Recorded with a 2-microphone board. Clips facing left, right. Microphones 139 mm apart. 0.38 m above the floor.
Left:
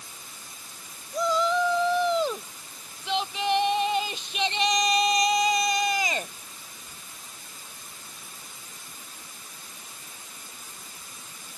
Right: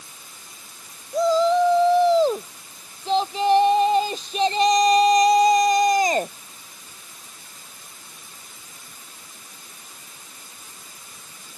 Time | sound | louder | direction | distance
1.1 | a shout | right 7 dB | 35° right (ahead or behind) | ?